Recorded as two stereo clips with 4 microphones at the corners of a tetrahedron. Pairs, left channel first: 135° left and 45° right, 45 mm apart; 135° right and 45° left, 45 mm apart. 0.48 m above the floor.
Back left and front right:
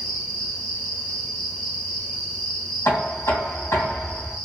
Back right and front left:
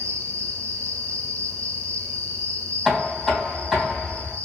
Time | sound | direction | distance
0.0 | an insect | 40° left | 0.8 m
2.9 | knocking | 140° left | 2 m